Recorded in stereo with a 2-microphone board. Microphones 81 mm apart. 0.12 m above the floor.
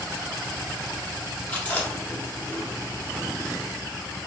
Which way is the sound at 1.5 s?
20° left (ahead or behind).